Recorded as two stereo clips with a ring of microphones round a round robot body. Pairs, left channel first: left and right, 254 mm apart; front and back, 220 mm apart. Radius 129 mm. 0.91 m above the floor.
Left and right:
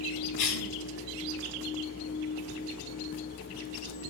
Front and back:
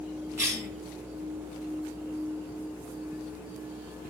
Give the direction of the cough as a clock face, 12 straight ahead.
9 o'clock.